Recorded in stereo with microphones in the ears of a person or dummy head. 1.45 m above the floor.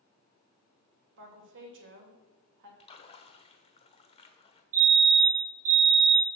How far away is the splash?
About 1.0 m.